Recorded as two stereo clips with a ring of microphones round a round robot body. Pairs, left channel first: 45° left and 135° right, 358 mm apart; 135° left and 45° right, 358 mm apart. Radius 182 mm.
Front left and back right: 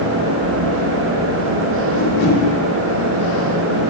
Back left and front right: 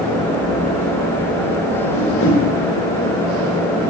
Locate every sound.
1.9 s a whoosh: 80° left, 6.5 m